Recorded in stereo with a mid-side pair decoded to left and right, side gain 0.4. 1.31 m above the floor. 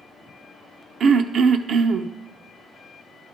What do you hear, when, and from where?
1.0 s throat clearing: 60° right, 0.6 m